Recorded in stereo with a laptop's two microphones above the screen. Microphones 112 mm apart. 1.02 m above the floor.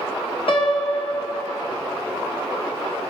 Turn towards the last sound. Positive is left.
turn(degrees=55)  # may be behind; listen again after turning